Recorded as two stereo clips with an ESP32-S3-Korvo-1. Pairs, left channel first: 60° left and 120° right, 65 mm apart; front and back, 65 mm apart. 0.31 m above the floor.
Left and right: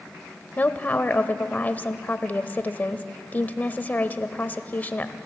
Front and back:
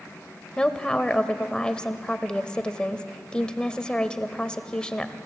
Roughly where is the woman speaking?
Ahead left.